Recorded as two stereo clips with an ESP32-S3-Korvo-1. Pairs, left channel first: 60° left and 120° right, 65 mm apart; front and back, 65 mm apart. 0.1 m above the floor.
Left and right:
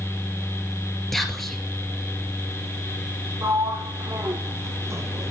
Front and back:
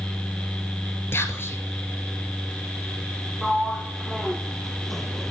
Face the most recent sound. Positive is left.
turn(degrees=-90)